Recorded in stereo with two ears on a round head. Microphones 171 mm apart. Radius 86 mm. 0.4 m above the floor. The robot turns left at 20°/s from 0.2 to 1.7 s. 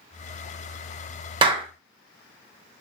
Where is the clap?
25° right (ahead or behind), 0.6 m.